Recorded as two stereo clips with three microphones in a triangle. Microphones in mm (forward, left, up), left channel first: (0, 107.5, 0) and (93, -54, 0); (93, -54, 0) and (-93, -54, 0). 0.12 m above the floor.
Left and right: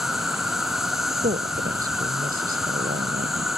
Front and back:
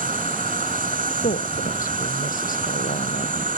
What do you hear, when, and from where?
0.0 s an insect: 150° right
1.2 s a woman speaking: 30° right